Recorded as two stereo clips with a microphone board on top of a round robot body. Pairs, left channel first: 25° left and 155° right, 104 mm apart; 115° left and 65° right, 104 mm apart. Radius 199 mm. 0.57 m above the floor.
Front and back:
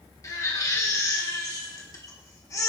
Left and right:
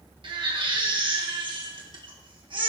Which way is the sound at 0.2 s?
35° right.